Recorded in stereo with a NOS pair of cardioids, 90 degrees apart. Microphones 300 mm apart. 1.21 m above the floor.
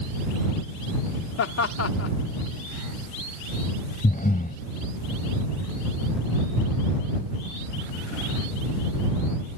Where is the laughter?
60° left.